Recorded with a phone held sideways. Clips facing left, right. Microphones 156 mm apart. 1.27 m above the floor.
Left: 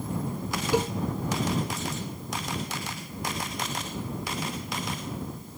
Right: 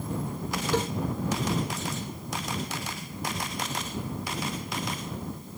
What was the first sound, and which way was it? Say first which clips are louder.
A cowbell: left 3 dB; 10° left (ahead or behind).